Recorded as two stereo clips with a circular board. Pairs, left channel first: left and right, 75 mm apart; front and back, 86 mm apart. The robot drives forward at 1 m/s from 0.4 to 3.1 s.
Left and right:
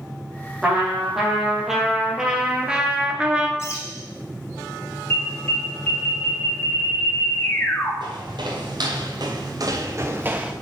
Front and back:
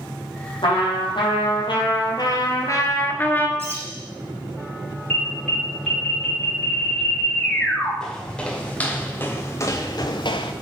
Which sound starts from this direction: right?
Footsteps, at 8.0 s.